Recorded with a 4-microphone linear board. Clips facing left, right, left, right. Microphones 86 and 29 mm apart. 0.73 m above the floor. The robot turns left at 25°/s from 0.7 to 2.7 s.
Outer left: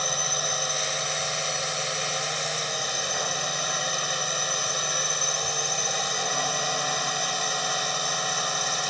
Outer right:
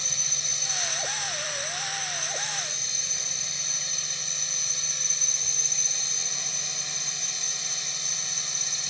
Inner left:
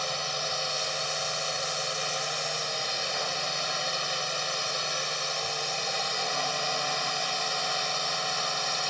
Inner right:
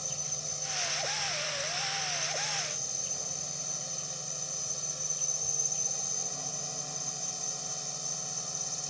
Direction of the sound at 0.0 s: 115° left.